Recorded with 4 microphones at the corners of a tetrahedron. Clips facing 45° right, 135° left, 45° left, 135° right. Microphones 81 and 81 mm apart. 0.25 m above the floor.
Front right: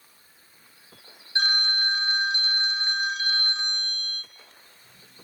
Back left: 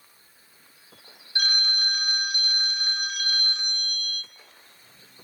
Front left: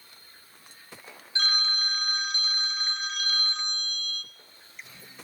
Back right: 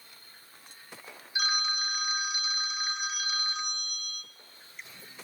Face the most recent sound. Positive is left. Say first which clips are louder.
# front right 3 dB, front left 1 dB
turn(degrees=-65)